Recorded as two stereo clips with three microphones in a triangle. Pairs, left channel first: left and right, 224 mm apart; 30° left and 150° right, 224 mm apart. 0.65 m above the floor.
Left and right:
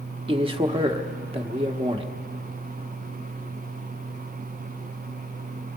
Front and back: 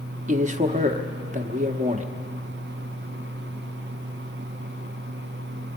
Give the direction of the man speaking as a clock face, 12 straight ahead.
5 o'clock.